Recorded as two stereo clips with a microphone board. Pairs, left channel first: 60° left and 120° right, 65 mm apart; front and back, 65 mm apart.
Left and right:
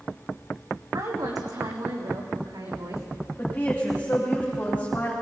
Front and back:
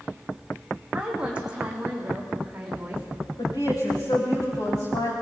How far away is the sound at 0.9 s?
About 5 m.